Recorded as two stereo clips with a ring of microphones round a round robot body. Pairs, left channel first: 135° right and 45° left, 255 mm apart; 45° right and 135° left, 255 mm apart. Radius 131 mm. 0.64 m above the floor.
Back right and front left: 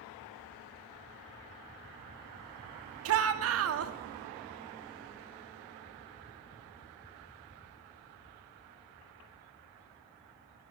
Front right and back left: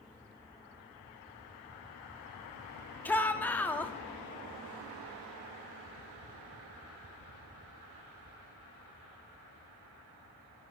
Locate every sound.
3.0 s a shout: 35° left, 0.9 m